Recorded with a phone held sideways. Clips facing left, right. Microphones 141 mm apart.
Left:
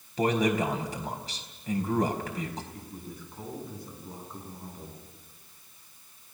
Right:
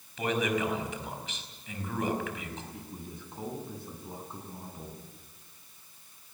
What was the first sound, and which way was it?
A man speaking, 35° left (ahead or behind).